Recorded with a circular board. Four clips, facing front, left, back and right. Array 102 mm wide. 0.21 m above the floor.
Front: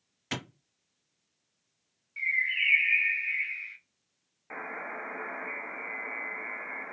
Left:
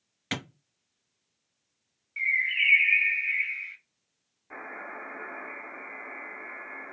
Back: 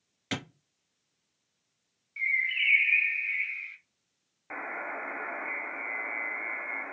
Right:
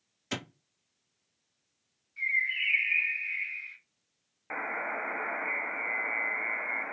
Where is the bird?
85° left, 1.4 m.